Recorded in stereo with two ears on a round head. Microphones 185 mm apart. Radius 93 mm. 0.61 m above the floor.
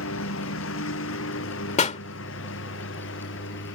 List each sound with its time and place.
0.0 s a lawn mower: 65° left (ahead or behind); by 3.8 s 60° left (ahead or behind)
1.8 s a pop: 35° left (ahead or behind)